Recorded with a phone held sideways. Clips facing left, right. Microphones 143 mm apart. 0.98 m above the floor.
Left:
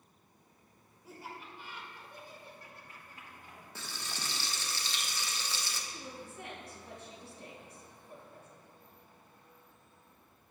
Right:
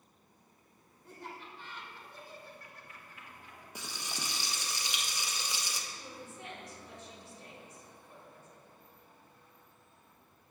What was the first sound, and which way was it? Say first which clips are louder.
Laughter: even; 5° left (ahead or behind).